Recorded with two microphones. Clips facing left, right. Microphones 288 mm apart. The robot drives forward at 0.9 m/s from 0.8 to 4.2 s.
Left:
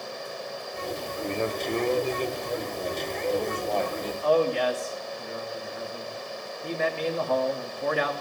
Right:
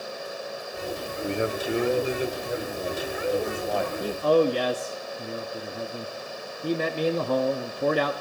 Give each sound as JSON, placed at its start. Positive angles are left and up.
{"t": 1.2, "sound": "a man speaking", "side_deg": -15, "distance_m": 1.0}
{"t": 4.0, "sound": "a man speaking", "side_deg": -40, "distance_m": 0.8}